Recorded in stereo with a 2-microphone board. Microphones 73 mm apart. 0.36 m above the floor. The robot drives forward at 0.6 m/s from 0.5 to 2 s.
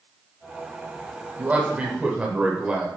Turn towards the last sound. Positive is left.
turn(degrees=-15)  # may be behind; listen again after turning